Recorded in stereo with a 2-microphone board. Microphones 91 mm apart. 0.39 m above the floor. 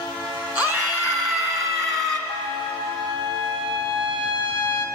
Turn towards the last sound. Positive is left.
turn(degrees=-75)  # may be behind; listen again after turning